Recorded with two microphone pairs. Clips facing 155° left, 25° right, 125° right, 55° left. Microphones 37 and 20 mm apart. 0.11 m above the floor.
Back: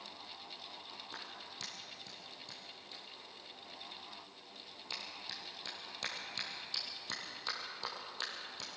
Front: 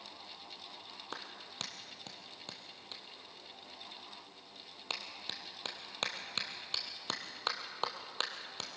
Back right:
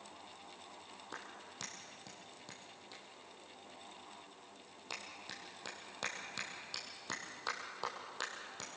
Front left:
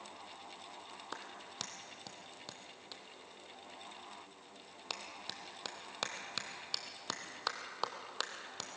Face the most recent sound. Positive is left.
turn(degrees=5)